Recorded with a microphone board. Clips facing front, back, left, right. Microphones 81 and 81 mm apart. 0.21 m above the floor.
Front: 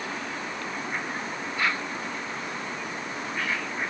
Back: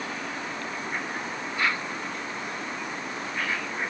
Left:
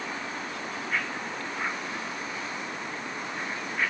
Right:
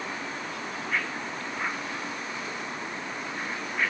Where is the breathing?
No breathing in this recording.